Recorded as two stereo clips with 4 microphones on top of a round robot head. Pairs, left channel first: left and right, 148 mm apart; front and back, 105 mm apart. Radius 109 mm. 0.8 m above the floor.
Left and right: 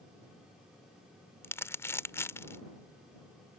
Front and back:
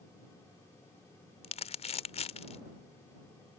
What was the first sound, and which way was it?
Crumpling, 15° left.